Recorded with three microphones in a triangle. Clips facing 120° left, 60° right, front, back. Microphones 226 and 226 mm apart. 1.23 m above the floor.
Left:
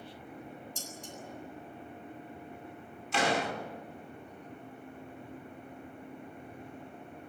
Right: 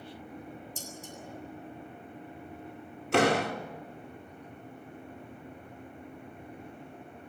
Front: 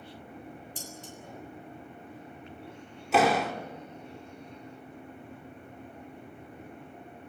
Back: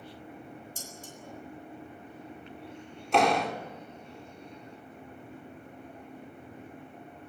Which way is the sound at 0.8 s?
135° left.